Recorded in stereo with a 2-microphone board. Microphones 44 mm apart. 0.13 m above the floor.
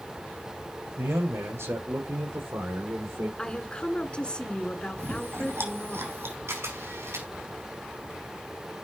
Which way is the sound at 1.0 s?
80° right.